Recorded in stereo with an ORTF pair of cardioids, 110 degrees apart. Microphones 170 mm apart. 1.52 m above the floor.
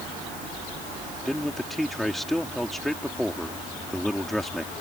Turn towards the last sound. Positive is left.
turn(degrees=0)